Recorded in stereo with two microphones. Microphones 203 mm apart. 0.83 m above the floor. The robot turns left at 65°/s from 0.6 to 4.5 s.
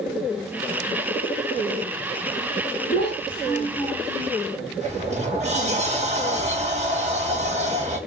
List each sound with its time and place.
2.9 s a child speaking: 75° left, 1.2 m; by 4.3 s 15° right, 1.2 m
4.8 s a sliding door: 35° right (ahead or behind), 0.5 m